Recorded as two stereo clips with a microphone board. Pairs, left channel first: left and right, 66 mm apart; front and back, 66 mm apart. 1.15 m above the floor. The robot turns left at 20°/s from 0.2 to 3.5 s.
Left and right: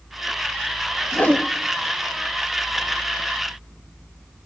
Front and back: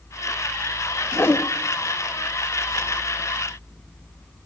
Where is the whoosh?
35° left, 1.3 m; by 1.5 s 30° left, 1.3 m.